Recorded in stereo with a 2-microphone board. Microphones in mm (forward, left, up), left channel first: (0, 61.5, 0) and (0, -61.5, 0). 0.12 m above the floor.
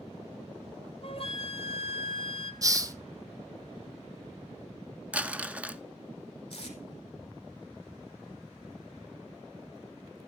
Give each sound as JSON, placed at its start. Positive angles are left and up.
{"t": 1.0, "sound": "a flute", "side_deg": 50, "distance_m": 1.2}
{"t": 2.6, "sound": "a hiss", "side_deg": -30, "distance_m": 0.8}
{"t": 5.1, "sound": "crumpling", "side_deg": -10, "distance_m": 0.6}
{"t": 6.5, "sound": "tape being pulled", "side_deg": 45, "distance_m": 3.5}